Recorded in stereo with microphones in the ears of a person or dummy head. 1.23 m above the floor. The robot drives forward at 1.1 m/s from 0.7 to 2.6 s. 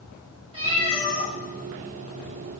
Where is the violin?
I don't hear a violin.